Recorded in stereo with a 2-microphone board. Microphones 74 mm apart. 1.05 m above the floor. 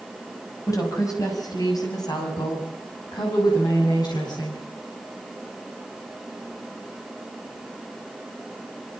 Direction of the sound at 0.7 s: 45° left (ahead or behind).